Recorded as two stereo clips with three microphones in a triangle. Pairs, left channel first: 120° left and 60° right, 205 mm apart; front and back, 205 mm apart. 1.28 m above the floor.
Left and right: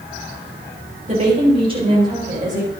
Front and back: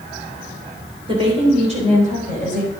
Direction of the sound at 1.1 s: 115° right.